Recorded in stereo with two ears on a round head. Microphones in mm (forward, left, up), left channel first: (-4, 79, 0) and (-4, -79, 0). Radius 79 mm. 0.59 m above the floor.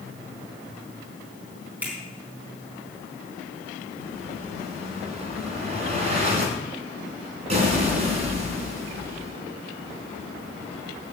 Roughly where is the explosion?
Right.